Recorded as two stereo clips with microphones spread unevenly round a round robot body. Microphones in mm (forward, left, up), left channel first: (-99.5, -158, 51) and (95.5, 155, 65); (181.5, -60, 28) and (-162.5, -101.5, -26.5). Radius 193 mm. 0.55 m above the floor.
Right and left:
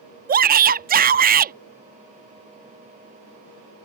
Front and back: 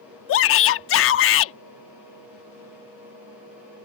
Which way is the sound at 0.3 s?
20° left.